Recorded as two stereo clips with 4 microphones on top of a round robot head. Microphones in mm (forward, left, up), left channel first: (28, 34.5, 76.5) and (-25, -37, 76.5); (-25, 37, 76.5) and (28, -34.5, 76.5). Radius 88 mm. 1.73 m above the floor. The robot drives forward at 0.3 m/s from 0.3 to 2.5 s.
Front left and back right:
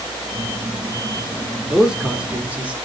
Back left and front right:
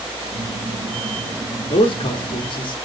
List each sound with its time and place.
1.7 s a man speaking: 150° left, 0.8 m; by 2.8 s 160° left, 1.0 m